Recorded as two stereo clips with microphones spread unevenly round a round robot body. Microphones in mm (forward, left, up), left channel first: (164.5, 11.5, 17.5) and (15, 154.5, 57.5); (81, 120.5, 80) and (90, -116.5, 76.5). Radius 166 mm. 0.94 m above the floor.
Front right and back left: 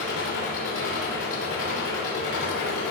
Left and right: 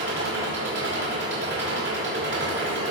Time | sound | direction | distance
0.0 | an engine running | 70° right | 5.5 m